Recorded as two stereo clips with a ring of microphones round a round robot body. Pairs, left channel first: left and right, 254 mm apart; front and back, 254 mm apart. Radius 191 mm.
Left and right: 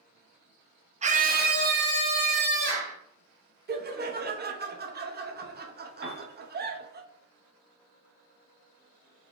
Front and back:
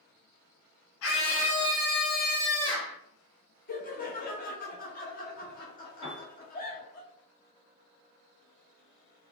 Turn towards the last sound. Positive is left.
turn(degrees=-50)